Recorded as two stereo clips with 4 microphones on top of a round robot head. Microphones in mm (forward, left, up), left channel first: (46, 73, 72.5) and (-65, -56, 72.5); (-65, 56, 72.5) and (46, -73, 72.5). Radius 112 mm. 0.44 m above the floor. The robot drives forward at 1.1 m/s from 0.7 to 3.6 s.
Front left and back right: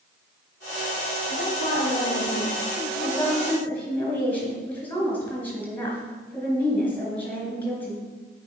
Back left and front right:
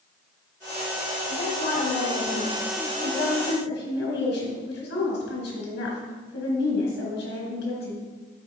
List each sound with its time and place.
1.3 s a woman speaking: 80° left, 3 m; by 8.1 s 130° left, 3.5 m